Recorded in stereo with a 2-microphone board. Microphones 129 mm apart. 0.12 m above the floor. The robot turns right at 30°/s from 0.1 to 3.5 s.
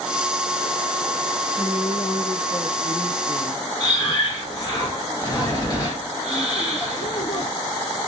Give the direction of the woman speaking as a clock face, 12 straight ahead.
1 o'clock.